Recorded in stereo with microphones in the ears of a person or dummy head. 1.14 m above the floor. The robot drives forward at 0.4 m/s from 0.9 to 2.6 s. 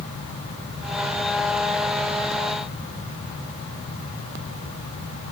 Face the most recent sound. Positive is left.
No sound to turn to.